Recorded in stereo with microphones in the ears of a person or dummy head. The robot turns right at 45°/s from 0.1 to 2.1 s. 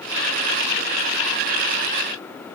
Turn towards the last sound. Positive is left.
No sound to turn to.